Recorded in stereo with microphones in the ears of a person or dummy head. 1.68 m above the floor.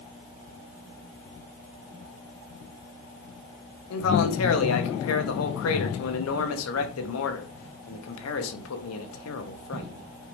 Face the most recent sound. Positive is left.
turn(degrees=90)